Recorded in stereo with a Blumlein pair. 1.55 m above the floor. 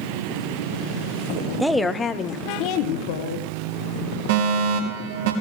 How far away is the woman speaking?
About 0.8 m.